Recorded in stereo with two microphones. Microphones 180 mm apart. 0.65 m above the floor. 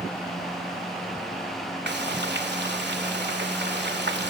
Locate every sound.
1.9 s frying: 70° right (ahead or behind), 1.9 m